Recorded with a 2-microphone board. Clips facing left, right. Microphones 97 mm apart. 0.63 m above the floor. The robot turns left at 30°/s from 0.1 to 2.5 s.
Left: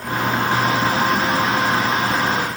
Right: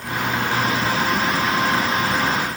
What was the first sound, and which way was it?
Only background noise.